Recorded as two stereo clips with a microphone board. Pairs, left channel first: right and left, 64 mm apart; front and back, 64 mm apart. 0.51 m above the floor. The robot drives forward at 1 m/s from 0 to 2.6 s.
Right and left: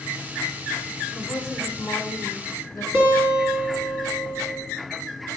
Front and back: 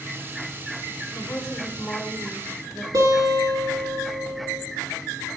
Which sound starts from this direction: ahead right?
A woman speaking, at 1.1 s.